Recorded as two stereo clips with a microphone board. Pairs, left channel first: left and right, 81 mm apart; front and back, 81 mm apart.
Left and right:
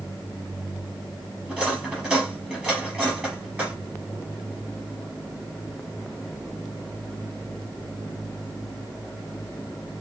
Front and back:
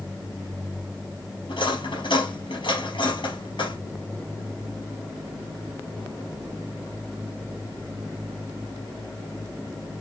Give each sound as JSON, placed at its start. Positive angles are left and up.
{"t": 1.5, "sound": "cutlery clinking", "azimuth_deg": -15, "distance_m": 3.0}